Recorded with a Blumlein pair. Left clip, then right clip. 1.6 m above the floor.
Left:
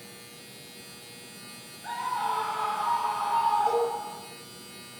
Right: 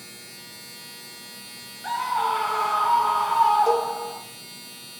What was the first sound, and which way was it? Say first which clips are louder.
A machine running: right 4 dB; 60° right.